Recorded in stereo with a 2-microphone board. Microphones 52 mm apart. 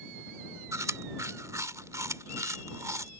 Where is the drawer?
I don't hear a drawer.